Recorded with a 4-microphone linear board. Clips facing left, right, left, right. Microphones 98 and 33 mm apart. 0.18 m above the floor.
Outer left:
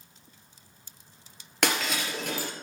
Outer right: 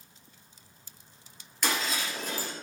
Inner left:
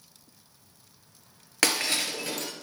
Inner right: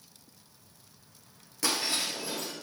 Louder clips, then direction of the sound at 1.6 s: Outer left 3 dB, inner left 4 dB; 70° left (ahead or behind).